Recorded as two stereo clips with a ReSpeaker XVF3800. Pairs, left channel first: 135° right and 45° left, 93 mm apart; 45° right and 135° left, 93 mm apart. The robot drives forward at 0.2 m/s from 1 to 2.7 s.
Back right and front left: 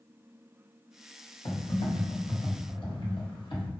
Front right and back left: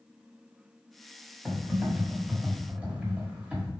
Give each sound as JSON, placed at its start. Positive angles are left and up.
{"t": 1.4, "sound": "typing on a keyboard", "azimuth_deg": -145, "distance_m": 1.4}